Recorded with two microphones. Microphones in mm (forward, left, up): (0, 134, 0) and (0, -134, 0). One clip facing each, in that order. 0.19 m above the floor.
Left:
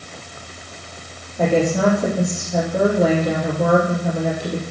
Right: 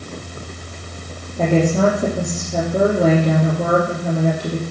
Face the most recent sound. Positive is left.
turn(degrees=-35)  # may be behind; listen again after turning